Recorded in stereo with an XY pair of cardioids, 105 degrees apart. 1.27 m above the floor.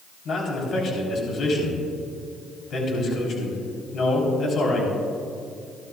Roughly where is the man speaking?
Ahead left.